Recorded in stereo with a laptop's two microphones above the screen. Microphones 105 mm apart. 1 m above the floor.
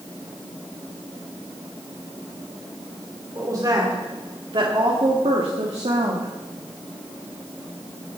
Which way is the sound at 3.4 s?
35° right (ahead or behind).